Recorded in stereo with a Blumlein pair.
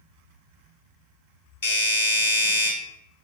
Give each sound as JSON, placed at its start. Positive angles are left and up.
{"t": 1.6, "sound": "a doorbell", "azimuth_deg": 55, "distance_m": 2.5}